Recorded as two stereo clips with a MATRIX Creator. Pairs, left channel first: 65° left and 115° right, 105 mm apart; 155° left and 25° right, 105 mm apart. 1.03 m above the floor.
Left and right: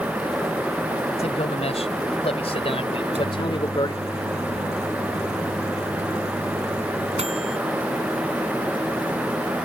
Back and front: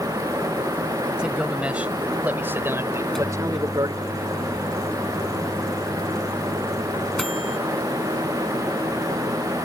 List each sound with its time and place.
1.2 s a man speaking: 60° left; by 4.0 s 25° left
3.0 s a microwave: 115° right